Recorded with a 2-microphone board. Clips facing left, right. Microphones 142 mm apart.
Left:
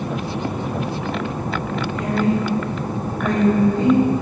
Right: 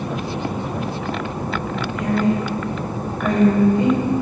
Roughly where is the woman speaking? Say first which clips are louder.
Right 1 dB; left.